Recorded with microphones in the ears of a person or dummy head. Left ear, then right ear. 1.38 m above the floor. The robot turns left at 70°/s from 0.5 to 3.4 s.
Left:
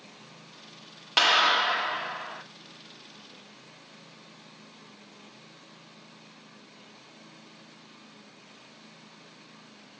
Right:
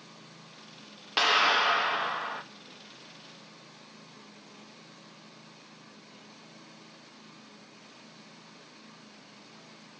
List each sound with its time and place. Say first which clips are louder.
1.2 s a clap: left 2 dB; 15° left, 1.0 m; by 2.4 s 75° right, 1.0 m